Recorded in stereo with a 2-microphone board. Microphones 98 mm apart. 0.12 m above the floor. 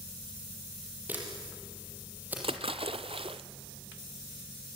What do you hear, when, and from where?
1.1 s a camera shutter: 15° right (ahead or behind), 4.5 m
2.4 s a splash: 70° right (ahead or behind), 0.8 m